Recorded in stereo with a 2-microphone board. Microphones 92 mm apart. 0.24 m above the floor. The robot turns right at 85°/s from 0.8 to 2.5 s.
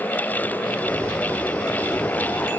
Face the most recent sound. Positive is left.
No sound to turn to.